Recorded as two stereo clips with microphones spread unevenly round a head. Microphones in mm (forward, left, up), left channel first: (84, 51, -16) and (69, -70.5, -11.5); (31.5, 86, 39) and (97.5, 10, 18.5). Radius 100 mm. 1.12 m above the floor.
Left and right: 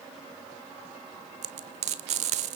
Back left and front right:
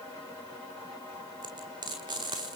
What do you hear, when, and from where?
1.4 s frying: 120° right, 1.4 m